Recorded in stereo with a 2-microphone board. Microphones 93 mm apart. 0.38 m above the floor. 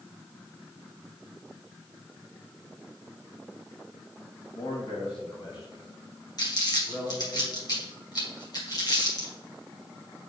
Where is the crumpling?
50° left (ahead or behind), 2 m.